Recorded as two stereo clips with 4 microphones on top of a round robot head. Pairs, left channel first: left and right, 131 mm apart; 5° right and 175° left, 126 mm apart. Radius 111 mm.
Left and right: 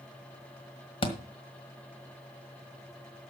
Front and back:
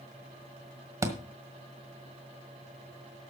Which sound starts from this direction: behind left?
A thud, at 1.0 s.